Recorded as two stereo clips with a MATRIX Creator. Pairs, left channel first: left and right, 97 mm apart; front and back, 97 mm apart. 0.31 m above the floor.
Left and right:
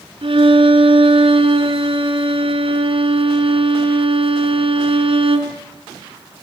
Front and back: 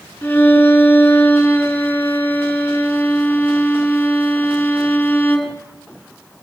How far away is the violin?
About 3.5 m.